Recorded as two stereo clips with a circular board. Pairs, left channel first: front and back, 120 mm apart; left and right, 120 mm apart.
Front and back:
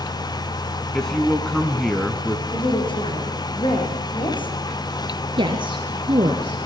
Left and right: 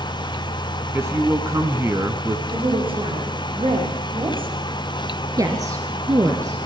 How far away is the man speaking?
About 1.4 m.